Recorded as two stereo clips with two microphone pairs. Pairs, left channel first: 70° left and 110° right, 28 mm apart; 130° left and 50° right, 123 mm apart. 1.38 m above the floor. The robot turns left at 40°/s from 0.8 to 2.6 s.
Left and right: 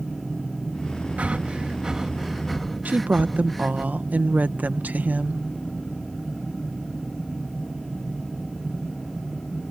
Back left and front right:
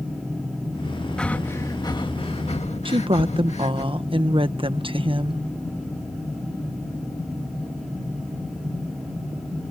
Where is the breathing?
145° right; by 3.9 s 155° left.